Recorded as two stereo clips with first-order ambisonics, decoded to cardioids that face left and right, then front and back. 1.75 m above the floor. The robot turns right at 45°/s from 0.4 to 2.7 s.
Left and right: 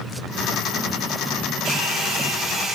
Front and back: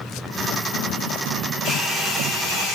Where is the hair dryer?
65° right, 3 m; by 2.8 s 15° right, 3 m.